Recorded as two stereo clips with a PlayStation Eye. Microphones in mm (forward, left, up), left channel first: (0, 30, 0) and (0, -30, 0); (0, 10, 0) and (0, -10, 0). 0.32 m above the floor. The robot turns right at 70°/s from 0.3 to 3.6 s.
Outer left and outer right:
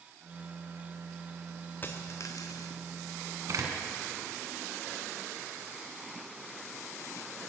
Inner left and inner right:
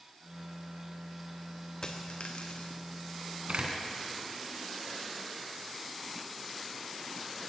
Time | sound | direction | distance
1.8 | a dropped coin | 35° left | 2.5 m
3.5 | a door slam | 65° right (ahead or behind) | 2.5 m